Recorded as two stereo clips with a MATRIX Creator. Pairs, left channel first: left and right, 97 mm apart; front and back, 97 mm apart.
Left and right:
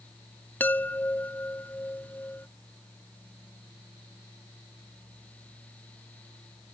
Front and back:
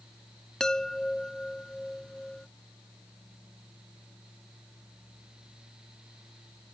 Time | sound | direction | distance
0.6 | a chime | 70° left | ?